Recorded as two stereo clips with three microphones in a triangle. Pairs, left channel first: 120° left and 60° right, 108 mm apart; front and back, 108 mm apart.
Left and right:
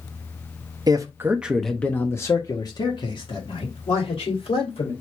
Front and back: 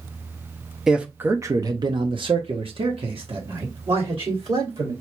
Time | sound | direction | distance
0.9 | a man speaking | 95° right | 0.7 m